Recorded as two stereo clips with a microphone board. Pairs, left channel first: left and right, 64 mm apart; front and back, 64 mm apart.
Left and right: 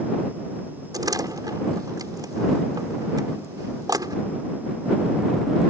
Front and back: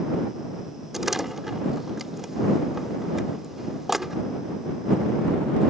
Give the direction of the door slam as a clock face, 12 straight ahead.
3 o'clock.